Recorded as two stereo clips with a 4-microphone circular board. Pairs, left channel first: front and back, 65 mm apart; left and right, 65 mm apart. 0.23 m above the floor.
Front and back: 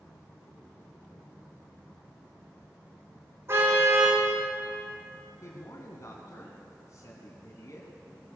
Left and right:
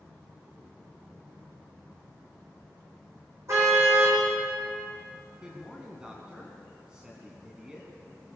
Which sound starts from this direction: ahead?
A man speaking, at 5.4 s.